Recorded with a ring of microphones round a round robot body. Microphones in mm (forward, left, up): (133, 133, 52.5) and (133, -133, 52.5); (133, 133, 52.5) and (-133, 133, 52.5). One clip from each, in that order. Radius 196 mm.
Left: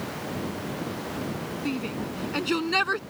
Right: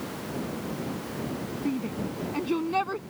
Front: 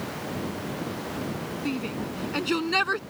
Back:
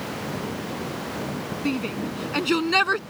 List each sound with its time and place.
1.6 s a shout: 135° left; by 3.0 s 130° left